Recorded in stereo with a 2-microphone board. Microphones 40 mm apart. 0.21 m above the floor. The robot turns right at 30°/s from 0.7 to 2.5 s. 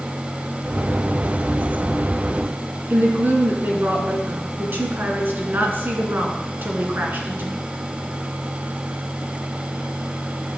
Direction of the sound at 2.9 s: 55° right (ahead or behind).